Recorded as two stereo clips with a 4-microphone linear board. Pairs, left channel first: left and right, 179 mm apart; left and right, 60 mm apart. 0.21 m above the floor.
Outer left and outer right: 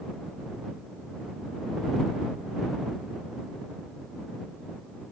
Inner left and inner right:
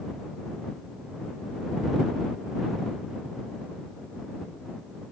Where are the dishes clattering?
I don't hear dishes clattering.